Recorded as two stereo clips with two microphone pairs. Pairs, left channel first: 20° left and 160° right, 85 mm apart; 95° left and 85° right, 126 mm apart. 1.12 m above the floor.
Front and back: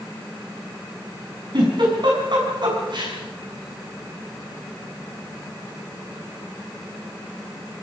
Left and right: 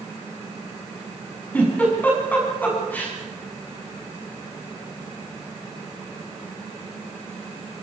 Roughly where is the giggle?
Behind.